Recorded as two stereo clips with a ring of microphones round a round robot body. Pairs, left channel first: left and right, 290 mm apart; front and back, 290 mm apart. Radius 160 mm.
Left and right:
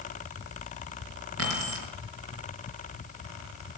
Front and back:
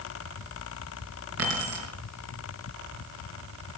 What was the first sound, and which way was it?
Keys jangling, 135° right.